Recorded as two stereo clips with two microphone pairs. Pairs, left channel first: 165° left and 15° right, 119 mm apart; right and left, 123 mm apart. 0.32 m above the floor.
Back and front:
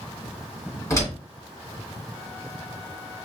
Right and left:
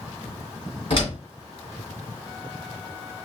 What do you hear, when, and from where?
0.9 s a door slam: 130° right, 2.5 m